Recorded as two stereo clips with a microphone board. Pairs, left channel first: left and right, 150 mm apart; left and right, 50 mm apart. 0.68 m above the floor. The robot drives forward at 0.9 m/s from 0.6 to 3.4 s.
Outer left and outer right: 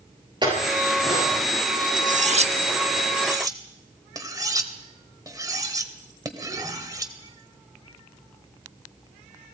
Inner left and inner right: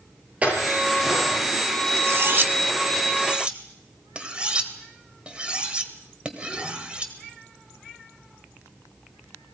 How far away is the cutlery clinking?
About 0.8 m.